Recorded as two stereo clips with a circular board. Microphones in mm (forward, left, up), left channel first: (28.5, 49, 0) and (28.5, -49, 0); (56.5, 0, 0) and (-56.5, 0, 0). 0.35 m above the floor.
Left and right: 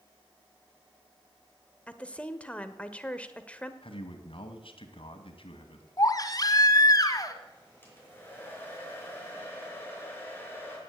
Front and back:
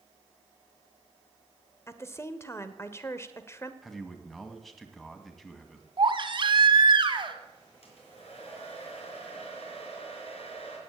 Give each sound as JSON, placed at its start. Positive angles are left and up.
{"t": 1.9, "sound": "a woman speaking", "azimuth_deg": 30, "distance_m": 1.1}
{"t": 3.8, "sound": "a man speaking", "azimuth_deg": 90, "distance_m": 2.0}
{"t": 6.0, "sound": "a baby crying", "azimuth_deg": 140, "distance_m": 1.4}
{"t": 7.8, "sound": "a hair dryer", "azimuth_deg": 20, "distance_m": 4.5}